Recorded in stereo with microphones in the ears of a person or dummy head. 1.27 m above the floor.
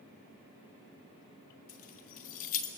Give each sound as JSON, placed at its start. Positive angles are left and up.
{"t": 1.7, "sound": "keys jangling", "side_deg": 40, "distance_m": 1.7}